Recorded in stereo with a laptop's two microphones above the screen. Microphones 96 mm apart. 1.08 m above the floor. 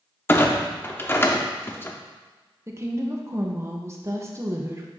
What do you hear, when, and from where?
0.3 s a clunk: 25° left (ahead or behind), 0.7 m
2.7 s a woman speaking: 30° right (ahead or behind), 0.7 m